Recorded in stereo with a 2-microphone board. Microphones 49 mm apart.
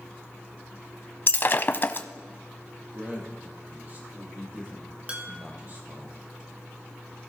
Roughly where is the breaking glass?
Left.